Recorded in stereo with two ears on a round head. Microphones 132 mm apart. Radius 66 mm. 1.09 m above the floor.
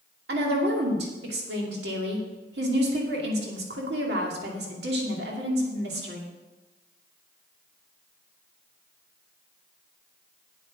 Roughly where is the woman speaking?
Right.